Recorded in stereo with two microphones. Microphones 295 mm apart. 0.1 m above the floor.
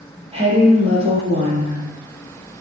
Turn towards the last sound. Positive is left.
turn(degrees=-20)  # may be behind; listen again after turning